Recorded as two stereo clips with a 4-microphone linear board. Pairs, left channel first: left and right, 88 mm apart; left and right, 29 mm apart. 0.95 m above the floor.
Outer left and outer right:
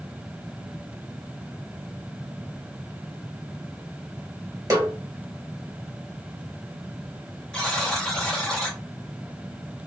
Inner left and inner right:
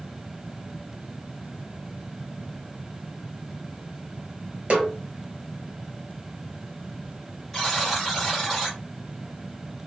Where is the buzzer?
10° left (ahead or behind), 1.2 m.